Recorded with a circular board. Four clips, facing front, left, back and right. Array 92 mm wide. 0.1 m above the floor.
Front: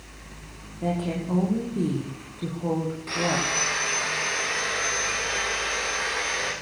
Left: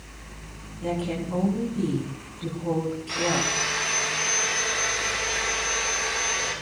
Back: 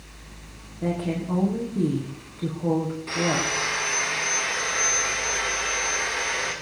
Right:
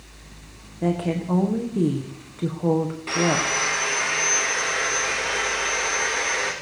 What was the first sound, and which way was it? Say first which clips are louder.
A woman speaking: right 4 dB, back 1 dB; 95° right.